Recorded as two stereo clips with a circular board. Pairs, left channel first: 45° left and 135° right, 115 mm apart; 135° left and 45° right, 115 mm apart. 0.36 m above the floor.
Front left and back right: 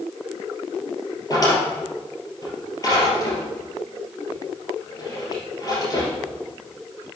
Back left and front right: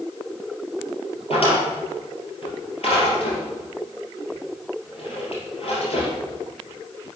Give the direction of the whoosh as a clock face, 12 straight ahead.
I don't hear a whoosh.